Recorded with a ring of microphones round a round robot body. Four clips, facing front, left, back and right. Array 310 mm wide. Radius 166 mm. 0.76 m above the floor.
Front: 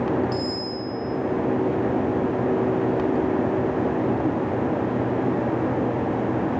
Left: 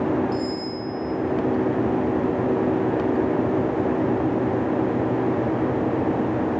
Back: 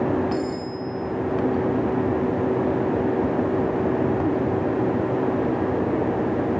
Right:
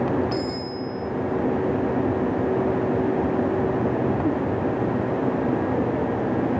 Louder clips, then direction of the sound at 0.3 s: Left 1 dB, back 1 dB; 75° right.